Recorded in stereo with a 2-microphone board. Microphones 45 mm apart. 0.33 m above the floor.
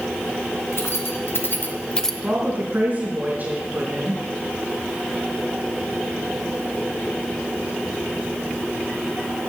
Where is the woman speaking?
35° right (ahead or behind), 4.5 m.